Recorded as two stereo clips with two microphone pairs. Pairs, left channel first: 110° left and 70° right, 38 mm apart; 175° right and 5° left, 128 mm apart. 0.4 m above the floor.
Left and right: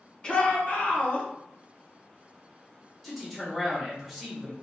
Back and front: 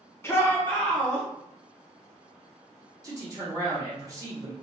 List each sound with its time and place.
0.2 s a shout: 140° left, 0.8 m; by 1.3 s 100° left, 1.3 m
3.0 s a man speaking: 25° left, 1.1 m